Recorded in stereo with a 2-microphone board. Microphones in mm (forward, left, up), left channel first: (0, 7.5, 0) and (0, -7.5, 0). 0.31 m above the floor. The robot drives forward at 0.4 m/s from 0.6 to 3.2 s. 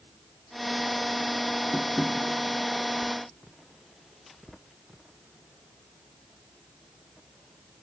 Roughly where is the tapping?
Left.